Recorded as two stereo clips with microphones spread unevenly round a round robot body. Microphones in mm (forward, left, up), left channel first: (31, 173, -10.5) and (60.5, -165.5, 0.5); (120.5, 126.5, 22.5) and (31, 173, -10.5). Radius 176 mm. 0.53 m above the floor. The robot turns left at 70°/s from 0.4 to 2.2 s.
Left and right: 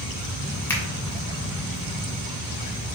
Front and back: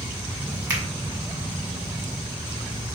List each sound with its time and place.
0.7 s a finger snap: 175° left, 1.2 m; by 0.8 s 165° left, 1.2 m